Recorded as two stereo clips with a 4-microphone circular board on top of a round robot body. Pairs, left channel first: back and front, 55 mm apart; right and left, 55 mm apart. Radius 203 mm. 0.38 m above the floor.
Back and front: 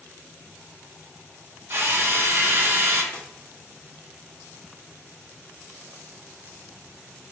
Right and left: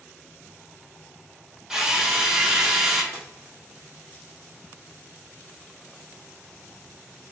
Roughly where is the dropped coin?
Left.